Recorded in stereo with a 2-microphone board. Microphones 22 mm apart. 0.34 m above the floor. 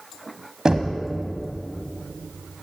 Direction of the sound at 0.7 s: 30° right (ahead or behind).